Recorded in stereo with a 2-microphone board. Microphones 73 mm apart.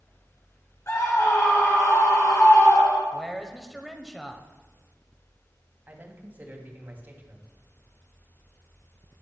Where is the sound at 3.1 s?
Centre (ahead or behind), 1.1 m.